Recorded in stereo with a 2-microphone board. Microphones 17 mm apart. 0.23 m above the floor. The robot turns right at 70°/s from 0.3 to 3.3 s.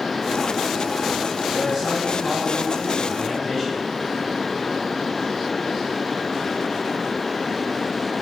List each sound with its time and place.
1.5 s a man speaking: 10° right, 2 m; by 3.8 s 115° left, 2 m